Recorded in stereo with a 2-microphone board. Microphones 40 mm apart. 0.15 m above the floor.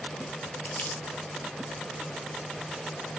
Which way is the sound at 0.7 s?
50° left (ahead or behind).